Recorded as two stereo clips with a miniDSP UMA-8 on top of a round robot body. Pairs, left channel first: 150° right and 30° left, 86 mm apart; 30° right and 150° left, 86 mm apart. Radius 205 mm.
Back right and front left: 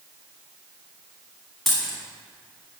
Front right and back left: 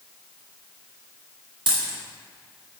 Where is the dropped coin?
120° left, 1.3 m.